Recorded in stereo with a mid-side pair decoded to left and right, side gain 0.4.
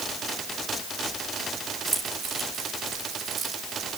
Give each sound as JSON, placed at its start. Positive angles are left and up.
{"t": 1.9, "sound": "keys jangling", "azimuth_deg": -45, "distance_m": 6.0}